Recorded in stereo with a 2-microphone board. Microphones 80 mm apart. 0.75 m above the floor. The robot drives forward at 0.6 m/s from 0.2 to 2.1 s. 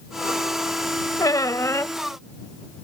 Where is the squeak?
55° left (ahead or behind); by 2.0 s 40° left (ahead or behind).